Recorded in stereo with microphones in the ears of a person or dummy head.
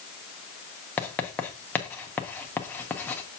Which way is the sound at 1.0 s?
10° left (ahead or behind).